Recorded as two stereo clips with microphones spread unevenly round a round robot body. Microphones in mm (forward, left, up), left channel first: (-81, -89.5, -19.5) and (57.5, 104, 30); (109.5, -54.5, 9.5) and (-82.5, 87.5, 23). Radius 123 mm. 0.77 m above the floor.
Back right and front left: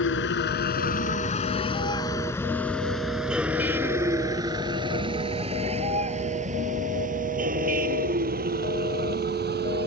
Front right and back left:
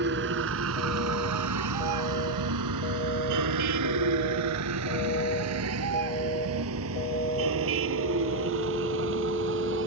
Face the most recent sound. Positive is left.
turn(degrees=105)